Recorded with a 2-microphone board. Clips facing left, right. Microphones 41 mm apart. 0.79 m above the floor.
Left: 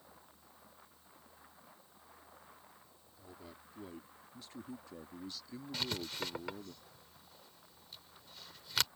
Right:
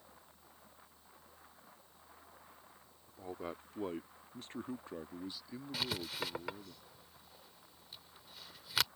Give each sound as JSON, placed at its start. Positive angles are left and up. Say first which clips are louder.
{"t": 3.1, "sound": "a man speaking", "louder": "right 11 dB", "side_deg": -65}
{"t": 5.7, "sound": "writing", "louder": "even", "side_deg": -10}